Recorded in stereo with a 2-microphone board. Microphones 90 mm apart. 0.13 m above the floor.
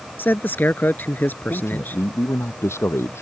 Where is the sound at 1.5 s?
30° left (ahead or behind).